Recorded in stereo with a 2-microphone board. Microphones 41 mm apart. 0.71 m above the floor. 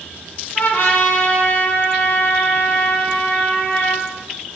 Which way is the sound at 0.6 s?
55° left (ahead or behind).